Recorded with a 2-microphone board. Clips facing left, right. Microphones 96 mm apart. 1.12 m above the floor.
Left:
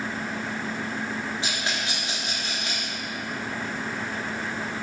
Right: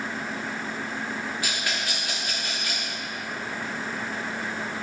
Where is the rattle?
25° left (ahead or behind), 3 m.